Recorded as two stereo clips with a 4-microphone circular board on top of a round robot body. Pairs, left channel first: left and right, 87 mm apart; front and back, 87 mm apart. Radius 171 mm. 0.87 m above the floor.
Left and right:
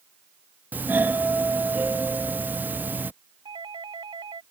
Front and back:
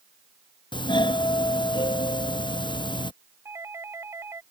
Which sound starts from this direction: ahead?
A doorbell, at 0.7 s.